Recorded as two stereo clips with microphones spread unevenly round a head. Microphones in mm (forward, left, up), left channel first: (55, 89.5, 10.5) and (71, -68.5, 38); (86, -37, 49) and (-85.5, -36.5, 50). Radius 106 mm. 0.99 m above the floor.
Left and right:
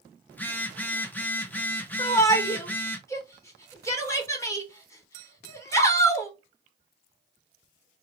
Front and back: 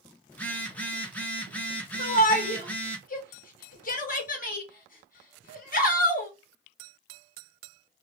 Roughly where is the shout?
Ahead left.